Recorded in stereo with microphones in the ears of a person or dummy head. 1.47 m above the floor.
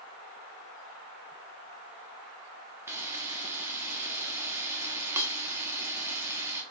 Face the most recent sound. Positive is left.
turn(degrees=-10)  # may be behind; listen again after turning